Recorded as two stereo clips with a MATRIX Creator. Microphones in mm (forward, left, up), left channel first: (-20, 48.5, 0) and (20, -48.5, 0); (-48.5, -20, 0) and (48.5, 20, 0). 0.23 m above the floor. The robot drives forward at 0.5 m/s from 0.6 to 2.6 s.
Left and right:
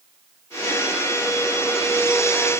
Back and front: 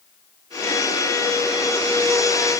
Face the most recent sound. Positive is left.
No sound to turn to.